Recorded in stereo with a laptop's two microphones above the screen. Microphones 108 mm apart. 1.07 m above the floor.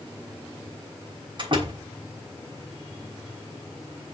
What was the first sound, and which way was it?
A door slam, 50° right (ahead or behind).